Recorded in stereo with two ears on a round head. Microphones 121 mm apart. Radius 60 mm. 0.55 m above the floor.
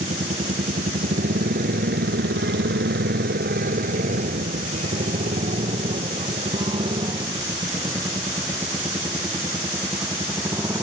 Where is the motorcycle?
45° right (ahead or behind); by 10.8 s 20° right (ahead or behind).